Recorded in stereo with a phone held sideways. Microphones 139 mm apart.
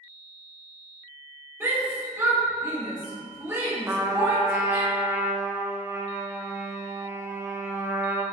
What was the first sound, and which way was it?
A shout, 15° right (ahead or behind).